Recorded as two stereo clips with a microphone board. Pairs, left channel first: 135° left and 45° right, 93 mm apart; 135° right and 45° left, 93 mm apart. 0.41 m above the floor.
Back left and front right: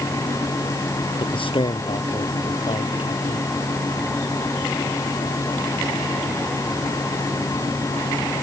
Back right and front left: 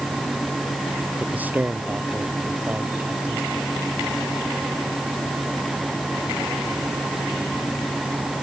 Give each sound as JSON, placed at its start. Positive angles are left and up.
{"t": 1.2, "sound": "a man speaking", "azimuth_deg": 115}